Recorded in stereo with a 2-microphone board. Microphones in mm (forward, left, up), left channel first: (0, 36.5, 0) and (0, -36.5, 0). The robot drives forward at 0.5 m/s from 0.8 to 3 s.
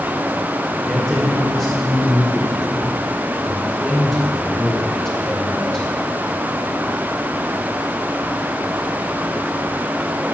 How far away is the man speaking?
About 2 m.